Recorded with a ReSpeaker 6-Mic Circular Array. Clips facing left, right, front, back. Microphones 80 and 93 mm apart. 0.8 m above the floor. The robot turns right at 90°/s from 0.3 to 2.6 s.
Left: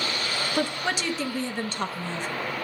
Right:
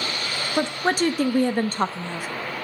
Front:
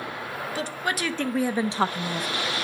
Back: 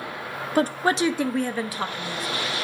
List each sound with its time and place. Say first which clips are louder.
0.6 s a woman speaking: right 7 dB, back 9 dB; 160° right, 0.6 m; by 2.3 s 5° right, 0.6 m